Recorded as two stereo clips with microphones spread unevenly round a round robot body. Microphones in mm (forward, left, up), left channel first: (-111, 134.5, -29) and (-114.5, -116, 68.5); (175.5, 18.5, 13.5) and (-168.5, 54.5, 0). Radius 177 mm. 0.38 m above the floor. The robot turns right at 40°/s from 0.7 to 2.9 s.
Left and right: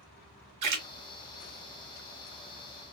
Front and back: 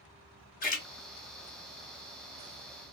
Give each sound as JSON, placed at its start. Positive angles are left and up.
{"t": 0.6, "sound": "a splash", "azimuth_deg": -70, "distance_m": 1.1}